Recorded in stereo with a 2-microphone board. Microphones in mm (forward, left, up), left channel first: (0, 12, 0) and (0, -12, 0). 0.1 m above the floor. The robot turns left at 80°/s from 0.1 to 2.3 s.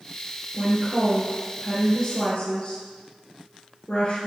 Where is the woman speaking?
75° right, 2.0 m; by 4.3 s 145° left, 2.0 m.